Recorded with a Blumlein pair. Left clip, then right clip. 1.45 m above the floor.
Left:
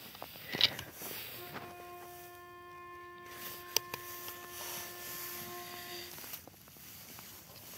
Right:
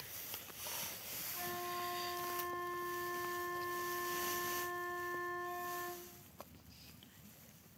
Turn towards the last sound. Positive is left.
turn(degrees=-70)